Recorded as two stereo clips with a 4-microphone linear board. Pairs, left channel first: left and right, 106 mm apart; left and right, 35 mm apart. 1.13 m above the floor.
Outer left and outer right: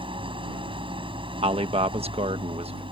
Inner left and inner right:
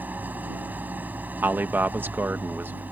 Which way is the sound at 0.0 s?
55° right (ahead or behind).